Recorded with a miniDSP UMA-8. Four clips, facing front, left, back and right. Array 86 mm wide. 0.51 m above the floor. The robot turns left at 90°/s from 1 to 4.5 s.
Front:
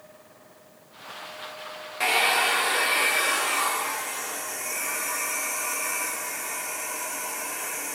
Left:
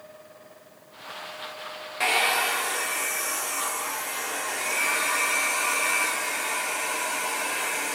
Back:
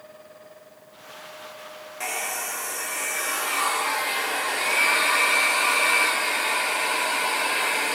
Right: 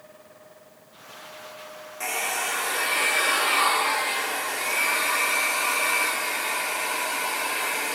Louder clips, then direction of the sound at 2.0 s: Left 5 dB, front 8 dB; 55° left.